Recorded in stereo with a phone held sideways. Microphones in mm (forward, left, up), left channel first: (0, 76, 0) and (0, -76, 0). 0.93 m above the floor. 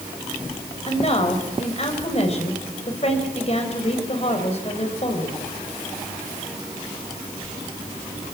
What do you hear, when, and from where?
0.9 s a woman speaking: 45° left (ahead or behind), 3.5 m